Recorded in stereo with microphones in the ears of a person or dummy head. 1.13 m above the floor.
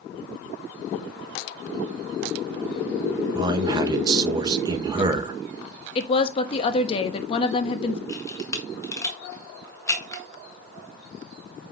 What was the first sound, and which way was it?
A man speaking, 20° right (ahead or behind).